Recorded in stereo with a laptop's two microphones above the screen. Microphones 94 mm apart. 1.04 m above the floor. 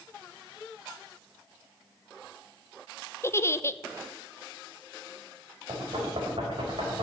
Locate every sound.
3.2 s a giggle: 25° left (ahead or behind), 0.6 m
5.7 s knocking: 65° right (ahead or behind), 4 m